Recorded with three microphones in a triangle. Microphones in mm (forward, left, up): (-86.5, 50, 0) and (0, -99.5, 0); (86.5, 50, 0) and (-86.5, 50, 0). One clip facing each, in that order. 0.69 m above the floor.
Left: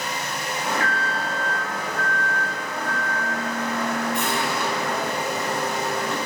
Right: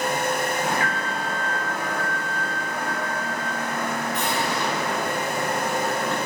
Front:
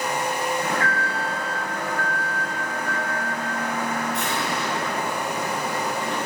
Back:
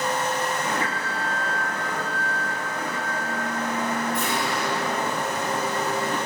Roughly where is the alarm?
Ahead.